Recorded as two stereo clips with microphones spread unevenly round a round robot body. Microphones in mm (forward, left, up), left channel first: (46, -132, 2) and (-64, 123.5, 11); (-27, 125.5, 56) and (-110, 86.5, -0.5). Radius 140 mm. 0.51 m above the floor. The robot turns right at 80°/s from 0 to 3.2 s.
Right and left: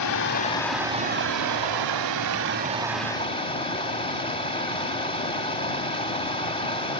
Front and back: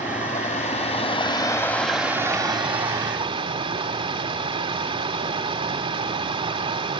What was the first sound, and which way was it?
Running water, 35° right.